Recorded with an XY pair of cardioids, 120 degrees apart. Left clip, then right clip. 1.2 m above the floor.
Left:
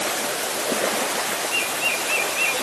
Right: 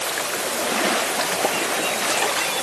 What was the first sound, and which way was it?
Only background noise.